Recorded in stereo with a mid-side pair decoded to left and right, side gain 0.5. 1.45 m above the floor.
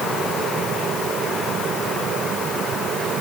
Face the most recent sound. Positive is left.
No sound to turn to.